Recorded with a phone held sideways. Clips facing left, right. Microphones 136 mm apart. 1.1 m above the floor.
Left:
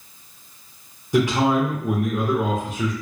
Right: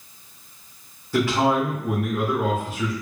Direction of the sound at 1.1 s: 20° left (ahead or behind).